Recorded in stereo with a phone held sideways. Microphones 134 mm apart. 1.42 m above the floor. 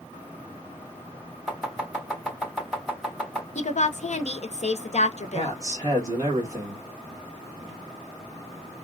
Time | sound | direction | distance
1.5 | chopping | 5° right (ahead or behind) | 2 m
3.5 | a woman speaking | 55° left (ahead or behind) | 0.6 m
5.3 | a man speaking | 25° right (ahead or behind) | 1.7 m